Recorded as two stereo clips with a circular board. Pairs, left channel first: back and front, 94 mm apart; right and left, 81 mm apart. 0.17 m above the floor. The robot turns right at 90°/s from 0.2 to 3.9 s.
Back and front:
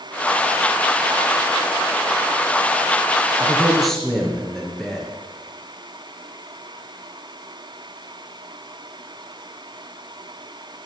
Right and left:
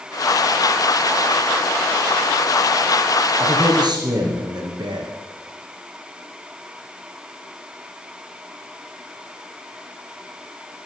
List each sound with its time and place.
3.4 s a man speaking: 50° left, 3.5 m; by 5.1 s 95° left, 3.5 m